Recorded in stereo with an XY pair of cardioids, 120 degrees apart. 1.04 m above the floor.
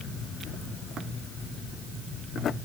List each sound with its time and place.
Only background noise.